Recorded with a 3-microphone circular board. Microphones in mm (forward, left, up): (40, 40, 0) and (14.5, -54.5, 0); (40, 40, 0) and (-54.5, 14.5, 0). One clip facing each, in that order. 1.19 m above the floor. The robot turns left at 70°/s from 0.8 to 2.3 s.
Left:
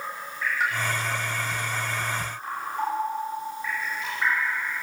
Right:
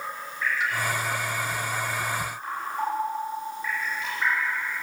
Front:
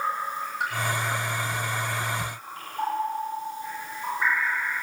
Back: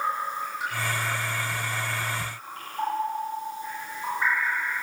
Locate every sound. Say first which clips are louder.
0.6 s a pop: left 4 dB, front 6 dB; 30° left, 8 m